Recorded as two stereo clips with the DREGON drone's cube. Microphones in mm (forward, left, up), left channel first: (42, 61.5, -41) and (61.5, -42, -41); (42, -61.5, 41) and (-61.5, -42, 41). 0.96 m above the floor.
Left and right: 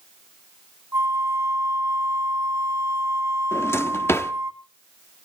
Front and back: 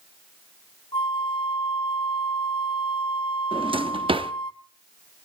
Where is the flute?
20° right, 0.9 m.